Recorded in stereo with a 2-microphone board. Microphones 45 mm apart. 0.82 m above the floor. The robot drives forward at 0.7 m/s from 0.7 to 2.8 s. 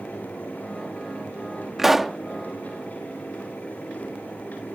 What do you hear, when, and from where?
1.8 s a pop: 5° right (ahead or behind)